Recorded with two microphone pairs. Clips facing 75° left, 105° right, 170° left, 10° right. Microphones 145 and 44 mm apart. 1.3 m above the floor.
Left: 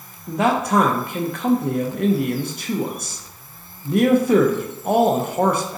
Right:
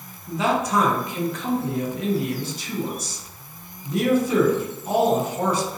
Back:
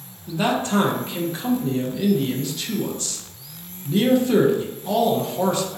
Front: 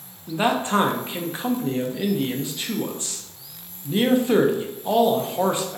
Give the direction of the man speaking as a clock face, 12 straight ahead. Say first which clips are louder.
Left 3 dB, even; 10 o'clock.